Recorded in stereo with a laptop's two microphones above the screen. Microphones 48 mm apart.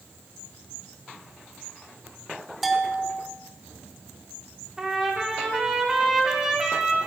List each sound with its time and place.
2.6 s a bell: 5° right (ahead or behind), 0.6 m
4.8 s a trumpet: 10° right (ahead or behind), 1.8 m